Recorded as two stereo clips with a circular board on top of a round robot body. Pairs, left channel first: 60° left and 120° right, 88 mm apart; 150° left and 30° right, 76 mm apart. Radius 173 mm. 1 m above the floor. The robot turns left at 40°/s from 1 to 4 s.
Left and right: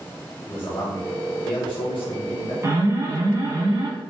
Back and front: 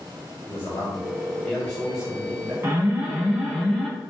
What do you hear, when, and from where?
0.5 s a man speaking: 95° left, 1.3 m; by 2.5 s 35° left, 1.3 m
2.6 s an alarm: 75° right, 1.3 m; by 3.9 s 125° right, 1.3 m